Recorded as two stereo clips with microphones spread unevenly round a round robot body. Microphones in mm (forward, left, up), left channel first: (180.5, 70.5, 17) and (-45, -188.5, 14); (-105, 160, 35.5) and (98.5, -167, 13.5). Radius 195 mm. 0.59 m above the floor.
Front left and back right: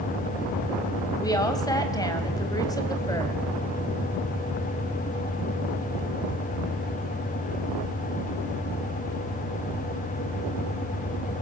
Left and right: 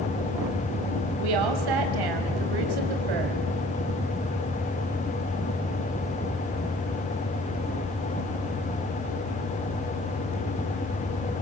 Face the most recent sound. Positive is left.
turn(degrees=-30)